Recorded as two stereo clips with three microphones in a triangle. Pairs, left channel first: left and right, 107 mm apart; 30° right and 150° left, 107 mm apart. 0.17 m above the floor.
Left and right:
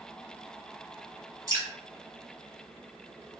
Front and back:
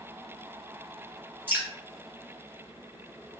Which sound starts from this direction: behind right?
Dripping, at 1.5 s.